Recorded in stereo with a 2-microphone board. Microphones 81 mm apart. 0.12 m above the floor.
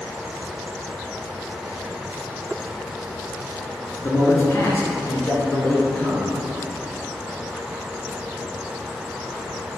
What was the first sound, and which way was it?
A man speaking, 35° left (ahead or behind).